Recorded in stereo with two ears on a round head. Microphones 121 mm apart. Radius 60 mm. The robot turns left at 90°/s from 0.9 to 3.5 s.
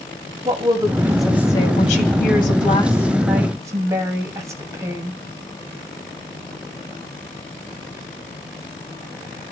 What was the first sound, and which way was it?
A woman speaking, 150° right.